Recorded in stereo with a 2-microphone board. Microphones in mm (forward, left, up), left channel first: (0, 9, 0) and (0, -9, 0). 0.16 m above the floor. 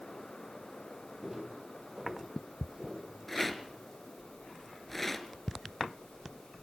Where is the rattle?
10° left (ahead or behind), 2 m.